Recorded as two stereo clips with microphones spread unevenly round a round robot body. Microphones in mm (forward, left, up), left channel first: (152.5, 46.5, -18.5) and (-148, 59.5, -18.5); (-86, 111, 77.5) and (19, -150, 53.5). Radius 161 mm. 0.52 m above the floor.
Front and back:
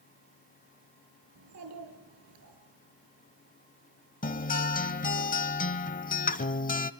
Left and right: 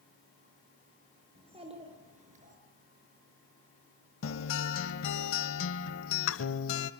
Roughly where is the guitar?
Ahead left.